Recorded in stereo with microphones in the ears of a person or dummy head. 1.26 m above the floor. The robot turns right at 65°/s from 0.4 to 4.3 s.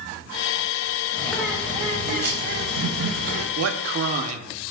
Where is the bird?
165° left, 0.8 m; by 3.5 s 45° right, 0.8 m.